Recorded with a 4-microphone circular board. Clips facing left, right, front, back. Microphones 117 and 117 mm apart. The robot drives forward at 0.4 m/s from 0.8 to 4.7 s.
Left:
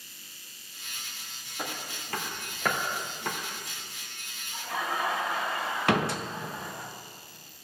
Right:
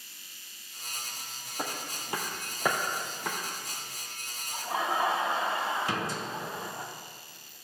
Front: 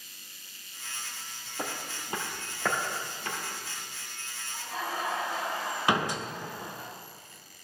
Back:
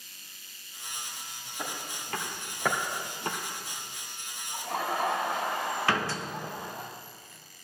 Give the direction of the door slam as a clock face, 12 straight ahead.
10 o'clock.